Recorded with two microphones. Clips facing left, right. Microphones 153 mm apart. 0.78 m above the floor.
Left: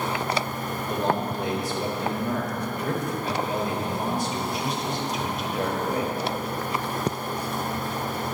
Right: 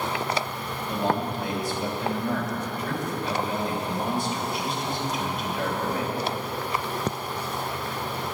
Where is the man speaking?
45° left (ahead or behind), 3.5 m.